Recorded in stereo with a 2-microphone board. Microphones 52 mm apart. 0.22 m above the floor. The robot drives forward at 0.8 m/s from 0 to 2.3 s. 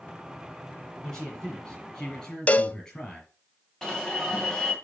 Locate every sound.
1.0 s a man speaking: 10° left (ahead or behind), 6 m; by 3.3 s 15° left (ahead or behind), 5 m
2.5 s a cowbell: 30° left (ahead or behind), 0.5 m
3.8 s an alarm: 15° left (ahead or behind), 2.5 m